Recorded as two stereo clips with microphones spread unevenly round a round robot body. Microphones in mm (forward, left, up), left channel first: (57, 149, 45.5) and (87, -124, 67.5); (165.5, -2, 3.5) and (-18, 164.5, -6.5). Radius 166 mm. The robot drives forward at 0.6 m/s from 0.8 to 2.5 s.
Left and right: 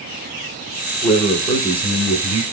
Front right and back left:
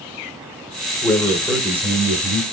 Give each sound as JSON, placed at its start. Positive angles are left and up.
{"t": 1.0, "sound": "a man speaking", "azimuth_deg": 35, "distance_m": 1.2}